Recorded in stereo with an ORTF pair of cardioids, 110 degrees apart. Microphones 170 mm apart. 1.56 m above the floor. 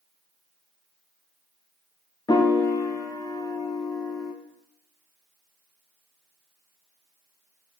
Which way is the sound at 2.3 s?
25° left.